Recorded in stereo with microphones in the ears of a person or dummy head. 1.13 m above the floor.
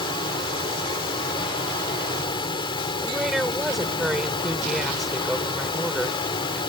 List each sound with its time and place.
0.0 s a fan: 30° left (ahead or behind)
3.0 s a woman speaking: centre (ahead or behind)